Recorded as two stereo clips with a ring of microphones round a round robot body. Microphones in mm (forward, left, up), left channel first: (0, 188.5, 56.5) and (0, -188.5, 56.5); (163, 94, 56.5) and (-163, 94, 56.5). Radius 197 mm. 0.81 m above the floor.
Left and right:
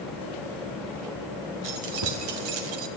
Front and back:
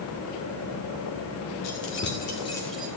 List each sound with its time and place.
1.6 s keys jangling: 50° right, 1.8 m; by 2.9 s 95° right, 1.3 m